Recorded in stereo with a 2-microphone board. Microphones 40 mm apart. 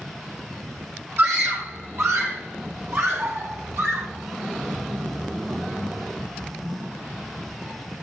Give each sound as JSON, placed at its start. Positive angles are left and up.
{"t": 1.2, "sound": "a scream", "side_deg": -70, "distance_m": 6.0}